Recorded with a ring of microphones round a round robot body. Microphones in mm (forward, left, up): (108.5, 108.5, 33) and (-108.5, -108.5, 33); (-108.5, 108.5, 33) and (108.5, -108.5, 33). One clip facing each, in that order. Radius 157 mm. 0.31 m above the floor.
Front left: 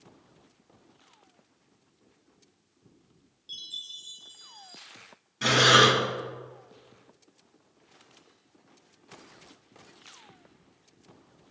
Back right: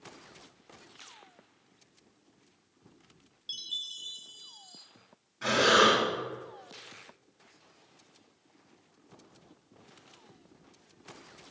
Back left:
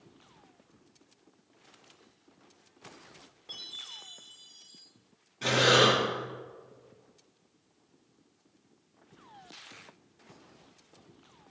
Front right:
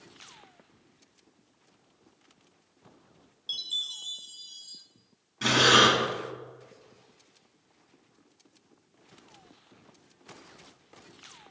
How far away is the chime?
About 1.5 m.